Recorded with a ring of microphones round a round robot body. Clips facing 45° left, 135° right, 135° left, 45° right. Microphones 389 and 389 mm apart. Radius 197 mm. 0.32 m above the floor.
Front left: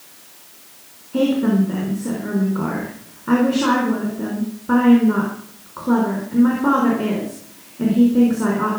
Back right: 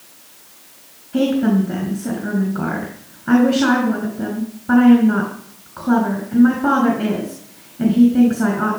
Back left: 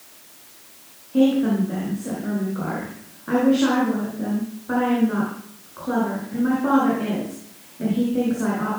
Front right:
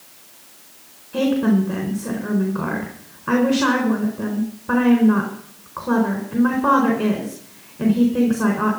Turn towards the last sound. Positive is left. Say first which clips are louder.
# back right 1 dB, even
turn(degrees=-55)